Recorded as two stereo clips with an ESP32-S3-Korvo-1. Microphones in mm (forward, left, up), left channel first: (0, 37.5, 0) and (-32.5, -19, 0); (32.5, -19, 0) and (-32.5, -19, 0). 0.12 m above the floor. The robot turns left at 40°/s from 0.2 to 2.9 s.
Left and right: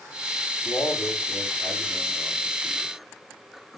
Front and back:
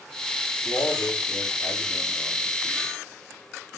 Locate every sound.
0.6 s a man speaking: 10° left, 5.5 m; by 2.9 s 80° right, 5.5 m